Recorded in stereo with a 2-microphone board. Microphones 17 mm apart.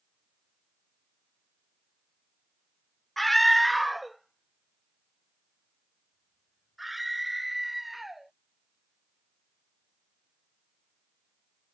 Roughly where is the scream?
Centre.